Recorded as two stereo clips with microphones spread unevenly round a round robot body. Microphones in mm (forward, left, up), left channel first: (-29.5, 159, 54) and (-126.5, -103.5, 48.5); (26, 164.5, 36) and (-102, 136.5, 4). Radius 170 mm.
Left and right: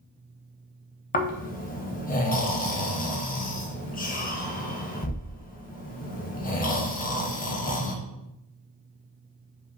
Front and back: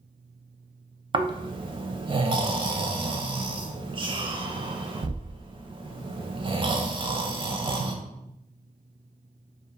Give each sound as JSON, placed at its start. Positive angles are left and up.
{"t": 1.1, "sound": "snoring", "azimuth_deg": 135, "distance_m": 0.5}